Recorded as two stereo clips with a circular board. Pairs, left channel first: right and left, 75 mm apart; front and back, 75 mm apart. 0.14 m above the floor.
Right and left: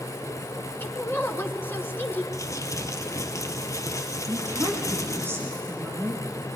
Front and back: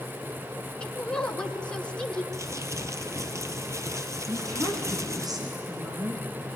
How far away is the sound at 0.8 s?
About 1.4 m.